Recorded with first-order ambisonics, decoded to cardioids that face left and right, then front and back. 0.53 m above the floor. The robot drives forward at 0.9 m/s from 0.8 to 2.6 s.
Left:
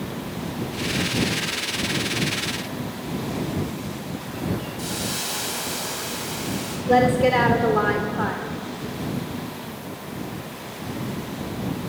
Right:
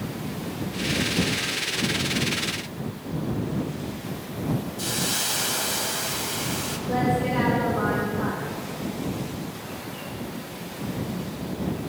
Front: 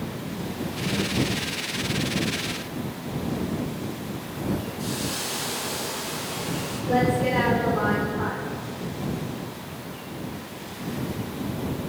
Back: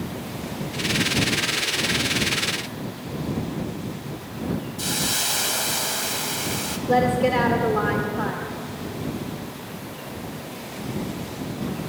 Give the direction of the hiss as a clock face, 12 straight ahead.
6 o'clock.